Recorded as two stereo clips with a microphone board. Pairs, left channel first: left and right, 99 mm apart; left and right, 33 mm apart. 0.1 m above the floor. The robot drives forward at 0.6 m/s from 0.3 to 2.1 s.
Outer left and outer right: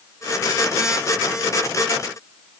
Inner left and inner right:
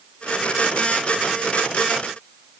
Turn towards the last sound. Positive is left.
No sound to turn to.